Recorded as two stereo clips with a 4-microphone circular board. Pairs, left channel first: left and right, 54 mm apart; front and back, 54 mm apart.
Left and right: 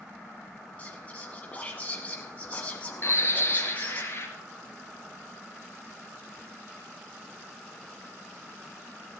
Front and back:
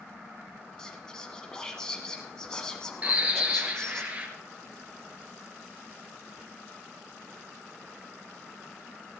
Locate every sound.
0.8 s whispering: 65° left, 1.1 m
3.0 s a bird: 120° left, 2.5 m